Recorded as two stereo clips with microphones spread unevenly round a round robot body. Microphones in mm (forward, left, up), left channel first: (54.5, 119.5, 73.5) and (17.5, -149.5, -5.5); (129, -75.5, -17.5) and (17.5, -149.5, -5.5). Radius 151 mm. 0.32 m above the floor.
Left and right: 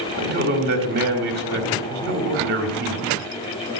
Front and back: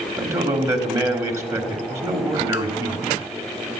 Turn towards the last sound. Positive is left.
turn(degrees=-80)